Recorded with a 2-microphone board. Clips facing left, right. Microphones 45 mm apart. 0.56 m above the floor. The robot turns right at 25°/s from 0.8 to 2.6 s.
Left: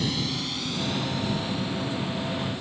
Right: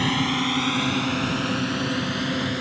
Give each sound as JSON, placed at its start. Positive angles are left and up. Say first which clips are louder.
{"t": 0.0, "sound": "a drone", "louder": "right 7 dB", "side_deg": -45}